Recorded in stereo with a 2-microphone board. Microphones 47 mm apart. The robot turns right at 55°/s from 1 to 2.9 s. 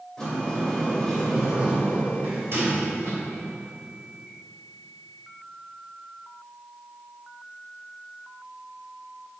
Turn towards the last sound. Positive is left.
turn(degrees=-95)